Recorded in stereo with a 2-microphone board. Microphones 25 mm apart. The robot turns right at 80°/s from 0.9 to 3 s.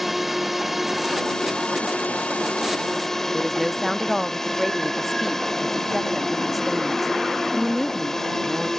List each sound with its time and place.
0.0 s a drone: 5° right; by 8.8 s 160° left
3.3 s a woman speaking: centre (ahead or behind)